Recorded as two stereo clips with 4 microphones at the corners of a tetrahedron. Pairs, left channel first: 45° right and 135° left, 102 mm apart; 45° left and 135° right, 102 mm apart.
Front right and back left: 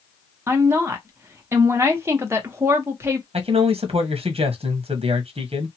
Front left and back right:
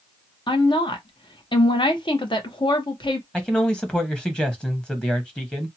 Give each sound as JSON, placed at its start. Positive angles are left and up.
{"t": 0.5, "sound": "a woman speaking", "azimuth_deg": 70, "distance_m": 0.9}
{"t": 3.3, "sound": "a man speaking", "azimuth_deg": 125, "distance_m": 1.0}